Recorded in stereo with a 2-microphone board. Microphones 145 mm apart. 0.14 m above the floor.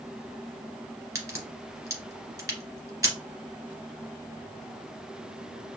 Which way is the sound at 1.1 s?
25° right (ahead or behind).